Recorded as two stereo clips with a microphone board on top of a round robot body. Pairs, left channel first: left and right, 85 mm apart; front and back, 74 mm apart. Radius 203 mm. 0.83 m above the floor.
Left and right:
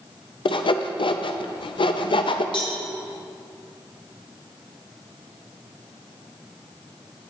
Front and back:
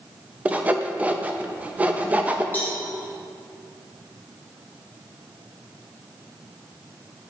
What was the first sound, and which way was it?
Sawing, 110° left.